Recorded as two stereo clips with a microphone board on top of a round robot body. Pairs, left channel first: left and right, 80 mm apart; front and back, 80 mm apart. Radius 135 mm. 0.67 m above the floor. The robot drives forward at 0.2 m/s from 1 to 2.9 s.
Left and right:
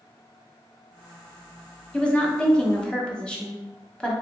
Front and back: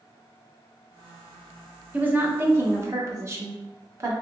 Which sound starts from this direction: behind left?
A woman speaking, at 1.9 s.